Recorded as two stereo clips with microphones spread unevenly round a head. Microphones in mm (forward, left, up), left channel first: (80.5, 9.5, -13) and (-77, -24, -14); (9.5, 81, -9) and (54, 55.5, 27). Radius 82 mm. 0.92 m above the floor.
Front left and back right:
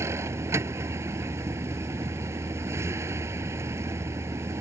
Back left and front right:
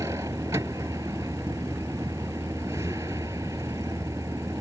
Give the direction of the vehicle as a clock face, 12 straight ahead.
3 o'clock.